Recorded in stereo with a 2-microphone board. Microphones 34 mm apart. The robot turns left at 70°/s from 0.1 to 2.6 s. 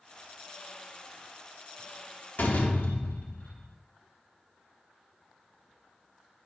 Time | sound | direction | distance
2.4 | a door slam | 65° left (ahead or behind) | 1.1 m